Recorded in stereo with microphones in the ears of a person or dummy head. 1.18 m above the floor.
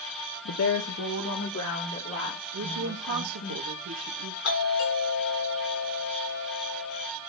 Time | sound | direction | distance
0.5 | a woman speaking | 75° left (ahead or behind) | 0.7 m
2.5 | a woman speaking | 80° right | 1.3 m
4.4 | a doorbell | 75° left (ahead or behind) | 5.5 m